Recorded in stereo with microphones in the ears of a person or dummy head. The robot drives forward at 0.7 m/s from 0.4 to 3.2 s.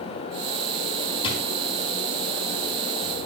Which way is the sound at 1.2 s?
30° left (ahead or behind).